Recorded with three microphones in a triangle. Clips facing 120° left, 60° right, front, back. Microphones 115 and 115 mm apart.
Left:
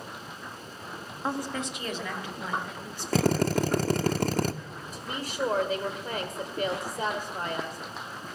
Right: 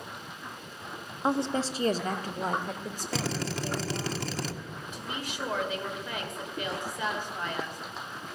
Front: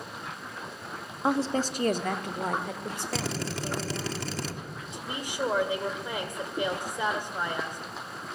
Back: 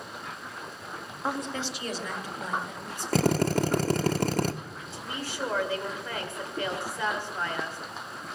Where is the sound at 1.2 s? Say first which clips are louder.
Right 4 dB, front 6 dB; 30° right, 0.6 m; by 4.1 s 15° right, 2.5 m.